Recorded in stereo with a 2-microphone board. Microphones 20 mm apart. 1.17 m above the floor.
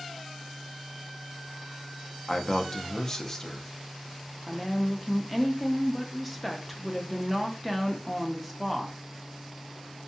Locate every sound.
2.3 s a man speaking: 15° left (ahead or behind), 0.5 m
4.5 s a woman speaking: 5° right (ahead or behind), 0.6 m